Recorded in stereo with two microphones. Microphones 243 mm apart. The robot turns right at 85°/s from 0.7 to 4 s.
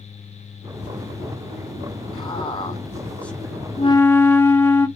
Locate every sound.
2.1 s a man speaking: 15° left (ahead or behind), 0.8 m; by 3.7 s 5° right (ahead or behind), 0.8 m
3.8 s a flute: 30° left (ahead or behind), 0.6 m; by 4.9 s 10° left (ahead or behind), 0.6 m